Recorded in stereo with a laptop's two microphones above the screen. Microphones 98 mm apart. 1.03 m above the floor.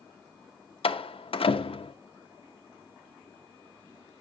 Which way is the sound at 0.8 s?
70° left (ahead or behind).